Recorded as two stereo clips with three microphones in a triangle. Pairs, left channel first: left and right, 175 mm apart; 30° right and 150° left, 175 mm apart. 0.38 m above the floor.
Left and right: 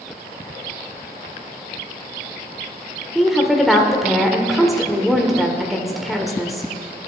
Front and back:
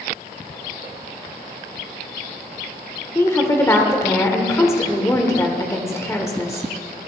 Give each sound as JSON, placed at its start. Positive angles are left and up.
{"t": 3.1, "sound": "a woman speaking", "azimuth_deg": 0, "distance_m": 1.0}